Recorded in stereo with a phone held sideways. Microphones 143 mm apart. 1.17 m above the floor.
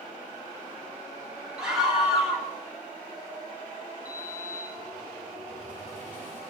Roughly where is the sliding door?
Right.